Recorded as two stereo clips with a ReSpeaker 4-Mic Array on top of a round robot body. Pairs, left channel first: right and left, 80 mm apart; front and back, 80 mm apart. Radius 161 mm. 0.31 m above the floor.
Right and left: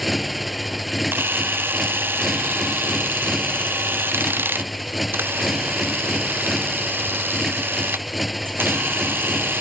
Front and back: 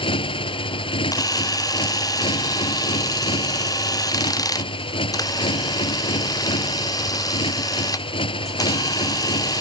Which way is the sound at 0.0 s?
Straight ahead.